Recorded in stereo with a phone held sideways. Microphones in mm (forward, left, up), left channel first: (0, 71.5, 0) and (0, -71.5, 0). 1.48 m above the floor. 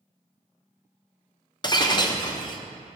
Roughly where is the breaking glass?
Left.